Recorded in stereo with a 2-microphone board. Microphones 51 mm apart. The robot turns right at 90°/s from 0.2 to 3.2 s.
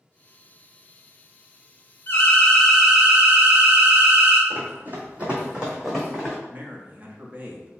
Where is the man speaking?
30° right (ahead or behind), 0.8 m.